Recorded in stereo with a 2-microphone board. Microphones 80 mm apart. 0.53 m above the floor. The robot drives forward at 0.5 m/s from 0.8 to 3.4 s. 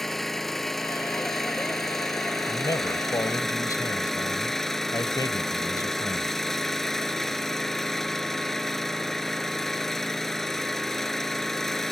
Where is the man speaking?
55° left (ahead or behind); by 6.3 s 50° left (ahead or behind).